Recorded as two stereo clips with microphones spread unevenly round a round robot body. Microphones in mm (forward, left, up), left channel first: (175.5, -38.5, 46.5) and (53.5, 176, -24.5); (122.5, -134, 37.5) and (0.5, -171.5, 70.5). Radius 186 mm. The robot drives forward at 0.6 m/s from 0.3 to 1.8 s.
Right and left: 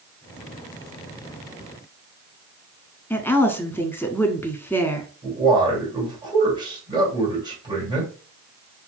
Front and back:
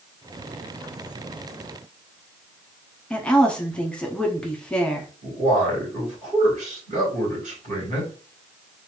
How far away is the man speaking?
About 1.9 m.